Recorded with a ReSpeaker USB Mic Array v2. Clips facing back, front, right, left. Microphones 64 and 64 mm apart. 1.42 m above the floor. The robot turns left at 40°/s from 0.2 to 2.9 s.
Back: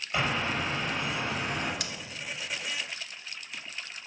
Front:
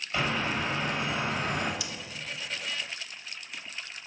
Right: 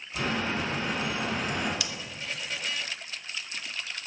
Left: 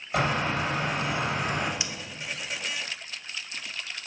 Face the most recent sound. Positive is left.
turn(degrees=110)